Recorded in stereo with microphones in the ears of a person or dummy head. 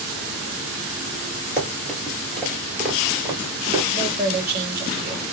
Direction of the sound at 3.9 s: 30° right (ahead or behind).